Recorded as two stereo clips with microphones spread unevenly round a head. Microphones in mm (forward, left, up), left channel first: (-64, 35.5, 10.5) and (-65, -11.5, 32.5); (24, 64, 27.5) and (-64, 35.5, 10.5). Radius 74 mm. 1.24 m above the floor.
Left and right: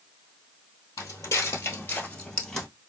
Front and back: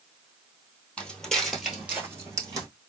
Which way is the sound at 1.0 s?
75° left.